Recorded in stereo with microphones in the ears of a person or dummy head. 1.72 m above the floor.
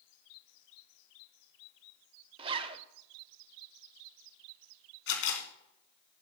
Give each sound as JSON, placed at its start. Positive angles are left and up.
{"t": 2.4, "sound": "a zipper", "side_deg": -30, "distance_m": 0.7}
{"t": 5.1, "sound": "a camera shutter", "side_deg": 80, "distance_m": 3.0}